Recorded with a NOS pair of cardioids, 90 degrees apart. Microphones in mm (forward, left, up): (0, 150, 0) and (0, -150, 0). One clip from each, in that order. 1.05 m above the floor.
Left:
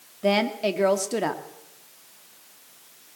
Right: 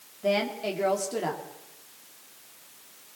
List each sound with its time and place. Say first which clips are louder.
0.2 s a woman speaking: left 4 dB; 45° left, 2.5 m